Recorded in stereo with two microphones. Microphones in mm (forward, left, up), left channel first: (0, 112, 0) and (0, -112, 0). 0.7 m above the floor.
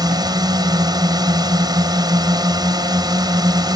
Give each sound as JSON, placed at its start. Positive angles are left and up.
{"t": 0.0, "sound": "a drone", "side_deg": -20}